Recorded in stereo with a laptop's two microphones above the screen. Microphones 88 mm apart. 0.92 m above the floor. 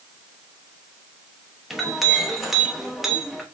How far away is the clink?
About 0.9 m.